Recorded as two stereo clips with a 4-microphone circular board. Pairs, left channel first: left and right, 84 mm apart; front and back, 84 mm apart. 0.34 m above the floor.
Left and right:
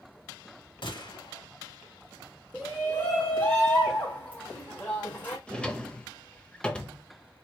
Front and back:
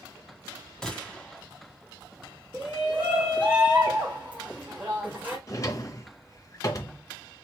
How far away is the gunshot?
About 1.3 m.